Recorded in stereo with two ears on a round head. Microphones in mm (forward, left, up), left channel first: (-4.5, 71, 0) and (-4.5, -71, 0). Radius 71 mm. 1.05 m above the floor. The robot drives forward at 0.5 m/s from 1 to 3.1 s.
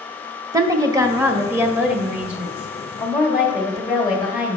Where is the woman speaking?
20° right (ahead or behind), 0.5 m; by 4.6 s 5° right (ahead or behind), 1.5 m.